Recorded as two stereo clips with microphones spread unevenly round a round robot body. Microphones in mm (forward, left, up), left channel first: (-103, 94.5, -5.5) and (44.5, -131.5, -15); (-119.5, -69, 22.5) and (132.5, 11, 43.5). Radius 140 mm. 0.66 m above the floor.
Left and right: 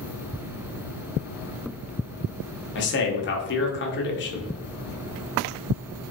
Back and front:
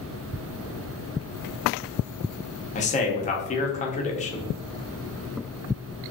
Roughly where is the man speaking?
Behind left.